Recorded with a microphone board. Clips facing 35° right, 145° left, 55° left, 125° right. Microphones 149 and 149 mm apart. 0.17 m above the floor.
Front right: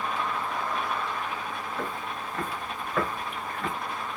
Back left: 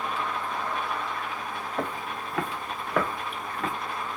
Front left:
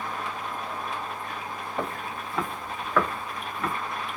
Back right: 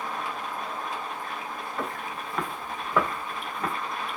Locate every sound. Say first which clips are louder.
1.8 s footsteps: back left 2 dB, front left 2 dB; 115° left, 0.9 m; by 3.7 s 175° left, 1.6 m